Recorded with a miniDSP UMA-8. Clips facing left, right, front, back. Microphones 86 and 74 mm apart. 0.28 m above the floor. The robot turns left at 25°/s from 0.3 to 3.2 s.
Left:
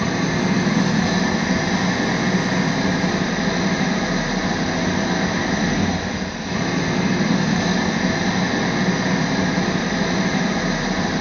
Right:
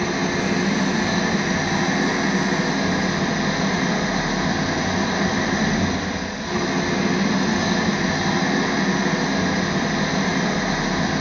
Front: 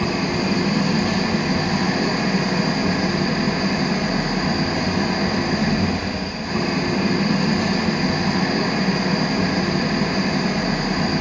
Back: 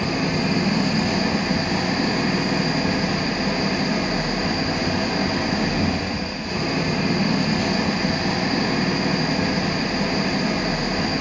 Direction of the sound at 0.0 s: 30° left.